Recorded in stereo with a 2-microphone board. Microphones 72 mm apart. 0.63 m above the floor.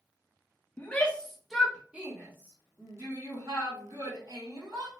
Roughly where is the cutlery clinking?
I don't hear cutlery clinking.